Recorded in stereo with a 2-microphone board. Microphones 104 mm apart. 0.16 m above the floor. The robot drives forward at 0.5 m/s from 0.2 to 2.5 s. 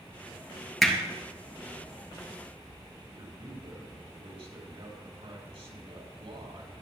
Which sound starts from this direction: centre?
Hammering, at 0.8 s.